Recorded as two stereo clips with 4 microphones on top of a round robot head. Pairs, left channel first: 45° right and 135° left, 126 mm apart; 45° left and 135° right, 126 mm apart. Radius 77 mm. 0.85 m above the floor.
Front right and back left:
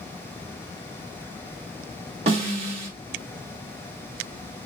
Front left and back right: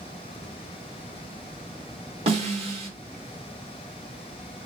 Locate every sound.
2.3 s a snare drum: straight behind, 1.8 m